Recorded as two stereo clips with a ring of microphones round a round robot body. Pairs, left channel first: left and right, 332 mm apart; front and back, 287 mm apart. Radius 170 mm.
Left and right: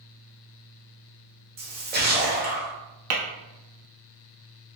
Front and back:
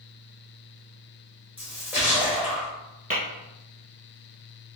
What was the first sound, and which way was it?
A splash, 100° right.